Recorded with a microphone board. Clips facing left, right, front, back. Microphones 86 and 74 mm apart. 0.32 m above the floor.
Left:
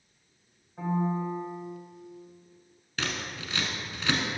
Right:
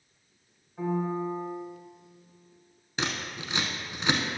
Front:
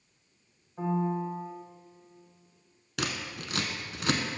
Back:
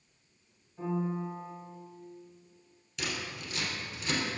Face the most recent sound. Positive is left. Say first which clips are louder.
# right 1 dB, front 3 dB
turn(degrees=-20)